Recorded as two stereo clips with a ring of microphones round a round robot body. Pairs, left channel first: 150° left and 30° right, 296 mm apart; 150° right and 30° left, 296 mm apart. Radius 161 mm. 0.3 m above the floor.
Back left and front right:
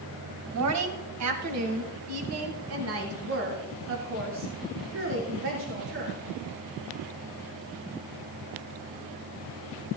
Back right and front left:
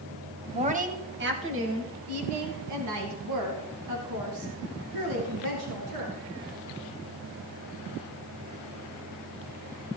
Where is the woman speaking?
35° right, 2 m; by 6.2 s 20° left, 6.5 m.